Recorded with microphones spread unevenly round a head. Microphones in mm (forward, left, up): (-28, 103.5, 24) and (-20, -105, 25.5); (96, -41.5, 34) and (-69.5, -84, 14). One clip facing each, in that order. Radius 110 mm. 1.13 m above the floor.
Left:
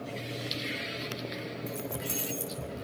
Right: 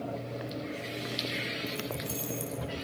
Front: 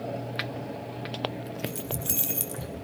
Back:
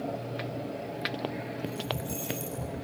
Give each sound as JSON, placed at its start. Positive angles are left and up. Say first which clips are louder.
{"t": 1.7, "sound": "keys jangling", "louder": "left 1 dB, even", "azimuth_deg": 15, "distance_m": 4.5}